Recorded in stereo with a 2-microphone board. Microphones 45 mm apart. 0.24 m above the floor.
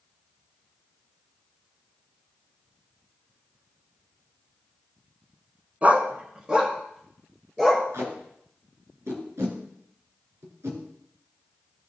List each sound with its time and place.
5.8 s a dog barking: 30° right (ahead or behind), 1.1 m; by 7.8 s 5° right (ahead or behind), 2.5 m
7.9 s tape being pulled: 70° right (ahead or behind), 2.5 m